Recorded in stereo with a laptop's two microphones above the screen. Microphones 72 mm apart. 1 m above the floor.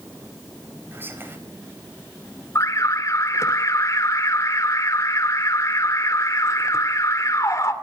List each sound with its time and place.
0.9 s whispering: 30° right (ahead or behind), 5 m
2.5 s an alarm: 45° left (ahead or behind), 2.5 m